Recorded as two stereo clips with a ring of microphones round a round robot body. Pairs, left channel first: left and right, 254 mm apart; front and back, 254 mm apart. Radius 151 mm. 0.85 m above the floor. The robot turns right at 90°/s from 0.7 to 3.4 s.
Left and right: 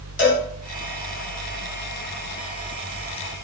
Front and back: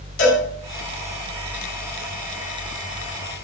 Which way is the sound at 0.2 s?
5° right.